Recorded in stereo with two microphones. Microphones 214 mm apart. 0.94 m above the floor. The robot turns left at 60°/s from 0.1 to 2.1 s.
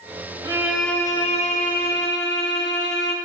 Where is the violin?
160° right, 1.3 m; by 3.1 s 100° left, 1.3 m.